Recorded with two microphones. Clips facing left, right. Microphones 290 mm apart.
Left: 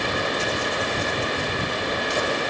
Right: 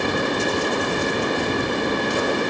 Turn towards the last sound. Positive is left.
No sound to turn to.